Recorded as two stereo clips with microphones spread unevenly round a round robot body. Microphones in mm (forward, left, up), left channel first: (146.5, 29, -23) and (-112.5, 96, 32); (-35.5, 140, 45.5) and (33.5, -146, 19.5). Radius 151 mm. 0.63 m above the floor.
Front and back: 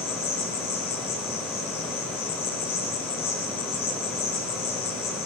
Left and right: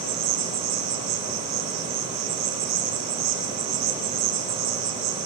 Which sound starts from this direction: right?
An insect, at 0.0 s.